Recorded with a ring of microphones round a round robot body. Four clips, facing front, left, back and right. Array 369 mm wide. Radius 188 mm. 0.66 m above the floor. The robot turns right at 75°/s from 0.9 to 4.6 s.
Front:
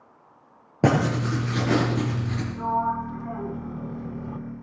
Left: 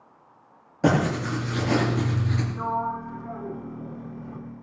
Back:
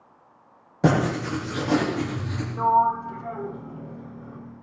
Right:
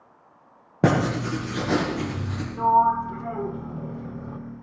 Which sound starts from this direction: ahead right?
Writing, at 0.8 s.